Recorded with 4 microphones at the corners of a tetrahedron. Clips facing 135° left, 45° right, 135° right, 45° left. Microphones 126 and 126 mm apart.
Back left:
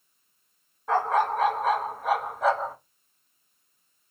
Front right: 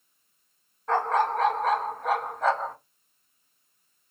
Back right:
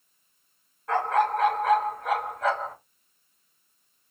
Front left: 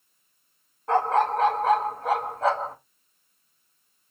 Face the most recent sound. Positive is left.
turn(degrees=55)